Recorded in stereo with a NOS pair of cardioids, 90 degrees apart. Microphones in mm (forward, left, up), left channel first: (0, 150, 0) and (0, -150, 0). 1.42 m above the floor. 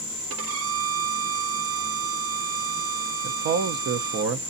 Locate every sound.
0.3 s a violin: 50° right, 0.7 m
3.2 s a man speaking: 60° right, 0.9 m